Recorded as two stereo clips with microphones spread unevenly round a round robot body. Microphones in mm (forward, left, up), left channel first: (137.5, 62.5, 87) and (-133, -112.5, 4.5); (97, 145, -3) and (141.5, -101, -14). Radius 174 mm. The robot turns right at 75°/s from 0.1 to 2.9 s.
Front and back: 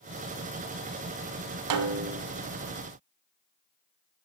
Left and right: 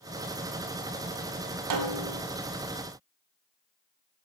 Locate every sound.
1.7 s a snare drum: 105° right, 0.9 m; by 2.2 s 70° right, 0.9 m